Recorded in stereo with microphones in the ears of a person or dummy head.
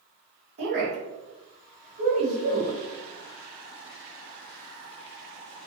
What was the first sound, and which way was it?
A woman speaking, 55° right (ahead or behind).